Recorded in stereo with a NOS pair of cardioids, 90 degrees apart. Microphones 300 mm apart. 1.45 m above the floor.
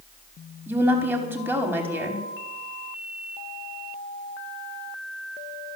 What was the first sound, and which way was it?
A woman speaking, 5° right.